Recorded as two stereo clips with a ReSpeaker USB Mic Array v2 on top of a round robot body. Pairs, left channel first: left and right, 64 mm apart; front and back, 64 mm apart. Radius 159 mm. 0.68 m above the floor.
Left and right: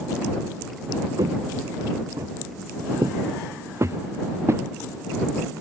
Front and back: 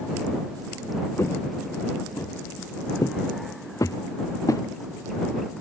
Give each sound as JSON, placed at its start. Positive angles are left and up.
{"t": 1.2, "sound": "footsteps", "azimuth_deg": -55}